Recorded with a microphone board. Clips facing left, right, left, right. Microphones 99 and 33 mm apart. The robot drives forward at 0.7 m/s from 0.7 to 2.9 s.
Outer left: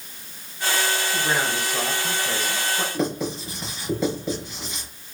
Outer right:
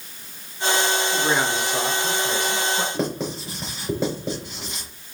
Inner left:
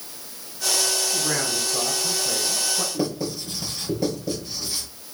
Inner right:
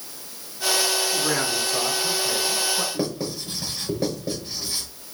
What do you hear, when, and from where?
1.1 s a man speaking: 55° right (ahead or behind), 4 m; by 2.8 s 45° right (ahead or behind), 4.5 m
2.9 s writing: 30° right (ahead or behind), 4.5 m